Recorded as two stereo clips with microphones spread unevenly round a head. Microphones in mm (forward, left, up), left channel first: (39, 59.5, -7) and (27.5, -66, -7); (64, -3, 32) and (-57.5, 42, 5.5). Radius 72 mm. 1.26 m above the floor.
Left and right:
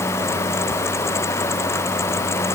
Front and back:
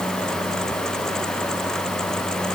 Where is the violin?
I don't hear a violin.